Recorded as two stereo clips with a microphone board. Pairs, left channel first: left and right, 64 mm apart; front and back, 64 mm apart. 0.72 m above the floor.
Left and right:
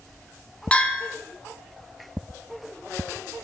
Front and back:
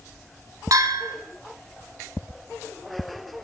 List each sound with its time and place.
0.7 s a bell: 160° left, 1.5 m